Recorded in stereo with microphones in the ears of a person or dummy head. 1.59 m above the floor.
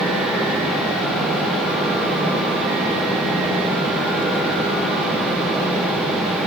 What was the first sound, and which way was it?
Only background noise.